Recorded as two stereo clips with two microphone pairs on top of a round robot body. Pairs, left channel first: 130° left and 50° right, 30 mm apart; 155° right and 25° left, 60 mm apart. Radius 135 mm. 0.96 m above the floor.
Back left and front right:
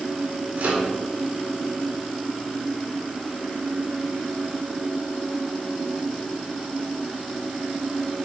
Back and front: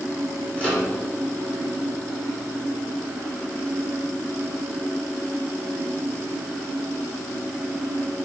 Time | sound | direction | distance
0.6 | a microwave | 85° right | 3 m